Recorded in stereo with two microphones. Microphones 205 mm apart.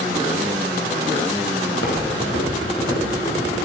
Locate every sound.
1.7 s footsteps: 85° left, 6.5 m; by 3.5 s 75° left (ahead or behind), 8 m